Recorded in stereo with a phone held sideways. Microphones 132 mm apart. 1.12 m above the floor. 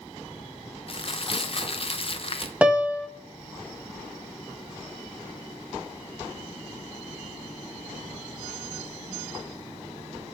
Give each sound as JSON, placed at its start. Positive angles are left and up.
{"t": 0.9, "sound": "crumpling", "side_deg": 45, "distance_m": 0.6}
{"t": 2.6, "sound": "a piano", "side_deg": -10, "distance_m": 0.8}